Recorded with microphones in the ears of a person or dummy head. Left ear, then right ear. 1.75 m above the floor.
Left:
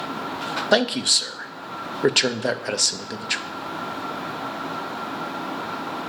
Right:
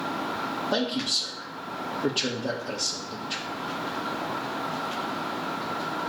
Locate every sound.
0.7 s a man speaking: 50° left (ahead or behind), 0.6 m